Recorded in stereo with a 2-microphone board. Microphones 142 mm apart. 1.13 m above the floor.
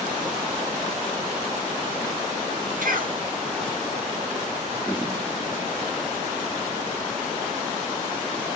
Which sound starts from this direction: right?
A cough, at 2.8 s.